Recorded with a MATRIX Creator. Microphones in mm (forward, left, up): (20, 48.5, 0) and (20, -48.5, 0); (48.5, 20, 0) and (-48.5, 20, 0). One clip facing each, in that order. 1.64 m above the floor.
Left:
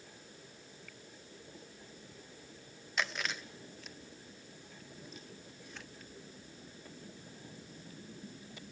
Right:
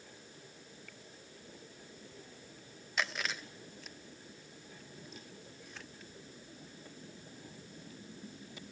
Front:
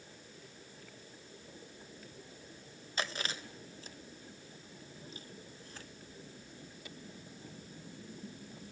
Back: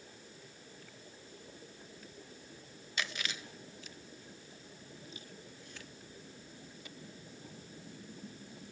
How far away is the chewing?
About 0.9 m.